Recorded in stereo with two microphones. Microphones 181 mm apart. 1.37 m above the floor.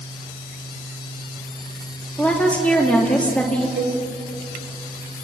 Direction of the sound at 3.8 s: 75° right (ahead or behind).